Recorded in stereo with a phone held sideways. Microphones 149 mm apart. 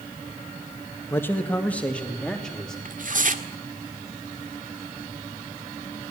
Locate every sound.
1.1 s a man speaking: 15° left (ahead or behind), 1.6 m; by 2.8 s 5° left (ahead or behind), 3 m
2.9 s tearing paper: 60° right (ahead or behind), 1.8 m